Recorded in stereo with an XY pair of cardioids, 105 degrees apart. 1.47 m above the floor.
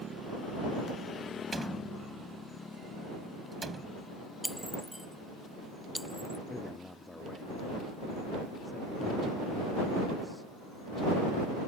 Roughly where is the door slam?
Ahead right.